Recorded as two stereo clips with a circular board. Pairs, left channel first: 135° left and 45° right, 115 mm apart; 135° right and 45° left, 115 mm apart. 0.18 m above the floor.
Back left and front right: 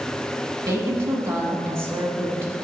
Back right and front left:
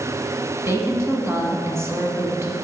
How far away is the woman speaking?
About 1.2 m.